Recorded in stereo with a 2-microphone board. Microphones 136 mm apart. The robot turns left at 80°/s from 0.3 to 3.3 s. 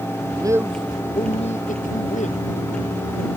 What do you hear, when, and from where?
0.2 s a man speaking: 140° right; by 2.4 s 50° left